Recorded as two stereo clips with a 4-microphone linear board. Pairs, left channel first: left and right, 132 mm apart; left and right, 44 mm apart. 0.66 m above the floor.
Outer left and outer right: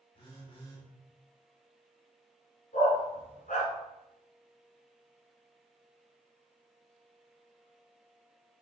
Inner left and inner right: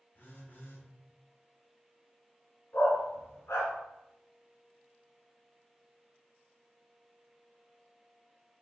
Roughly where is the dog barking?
Left.